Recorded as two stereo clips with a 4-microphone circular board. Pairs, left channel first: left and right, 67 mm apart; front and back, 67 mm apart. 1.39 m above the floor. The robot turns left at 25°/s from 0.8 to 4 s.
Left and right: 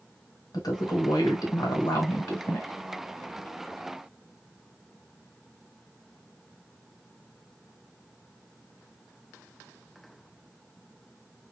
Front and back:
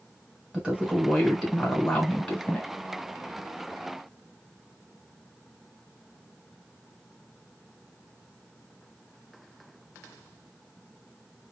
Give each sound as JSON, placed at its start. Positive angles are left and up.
{"t": 0.5, "sound": "a woman speaking", "azimuth_deg": 105, "distance_m": 1.1}